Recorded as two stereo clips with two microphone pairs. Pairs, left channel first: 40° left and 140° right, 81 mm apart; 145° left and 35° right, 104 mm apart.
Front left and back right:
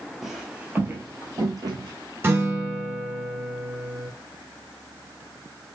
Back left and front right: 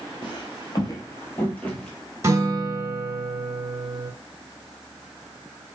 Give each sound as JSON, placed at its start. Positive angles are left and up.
{"t": 0.2, "sound": "footsteps", "azimuth_deg": 135, "distance_m": 0.8}
{"t": 2.2, "sound": "a guitar", "azimuth_deg": -90, "distance_m": 0.8}